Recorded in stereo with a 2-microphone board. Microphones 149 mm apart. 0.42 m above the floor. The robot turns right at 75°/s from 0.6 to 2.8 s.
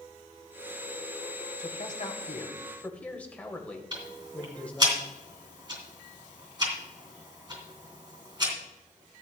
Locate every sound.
1.6 s a man speaking: 80° left, 1.8 m; by 4.9 s 170° left, 1.8 m
3.9 s ticking: 30° right (ahead or behind), 3 m